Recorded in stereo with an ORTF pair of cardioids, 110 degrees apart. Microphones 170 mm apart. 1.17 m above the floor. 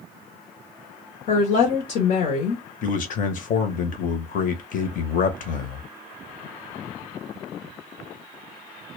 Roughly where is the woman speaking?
Left.